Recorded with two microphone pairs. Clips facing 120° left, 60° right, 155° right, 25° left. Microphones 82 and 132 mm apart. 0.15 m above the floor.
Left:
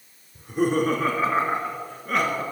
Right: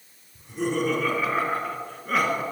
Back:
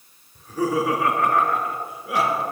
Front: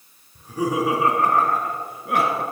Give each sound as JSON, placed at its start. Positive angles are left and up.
{"t": 0.3, "sound": "laughter", "azimuth_deg": 105, "distance_m": 2.5}